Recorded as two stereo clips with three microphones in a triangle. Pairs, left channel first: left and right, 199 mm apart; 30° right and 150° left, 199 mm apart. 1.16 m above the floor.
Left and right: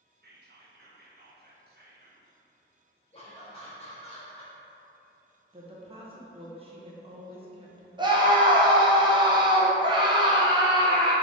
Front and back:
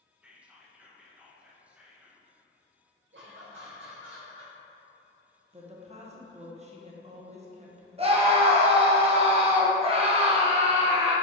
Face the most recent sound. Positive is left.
turn(degrees=-150)